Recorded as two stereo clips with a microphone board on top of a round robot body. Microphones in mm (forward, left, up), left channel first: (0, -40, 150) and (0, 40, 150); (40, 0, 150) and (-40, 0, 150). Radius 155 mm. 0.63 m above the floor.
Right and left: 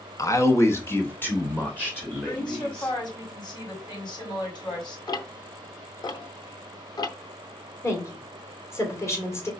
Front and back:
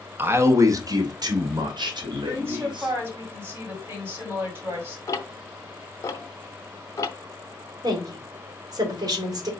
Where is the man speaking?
120° right, 1.1 m; by 2.9 s 165° right, 3 m.